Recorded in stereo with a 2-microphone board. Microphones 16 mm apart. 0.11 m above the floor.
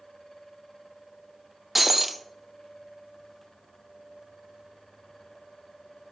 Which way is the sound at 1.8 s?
20° right (ahead or behind).